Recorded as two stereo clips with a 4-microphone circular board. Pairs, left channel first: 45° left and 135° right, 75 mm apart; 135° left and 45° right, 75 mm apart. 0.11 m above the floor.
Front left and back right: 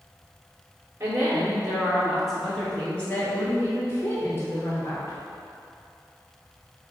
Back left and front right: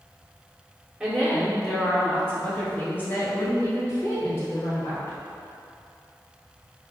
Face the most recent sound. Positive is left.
turn(degrees=90)